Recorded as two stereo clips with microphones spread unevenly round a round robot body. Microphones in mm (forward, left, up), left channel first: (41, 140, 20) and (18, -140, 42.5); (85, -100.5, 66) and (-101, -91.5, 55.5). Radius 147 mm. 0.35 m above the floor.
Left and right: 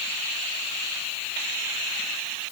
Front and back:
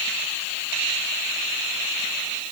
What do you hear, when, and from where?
Only background noise.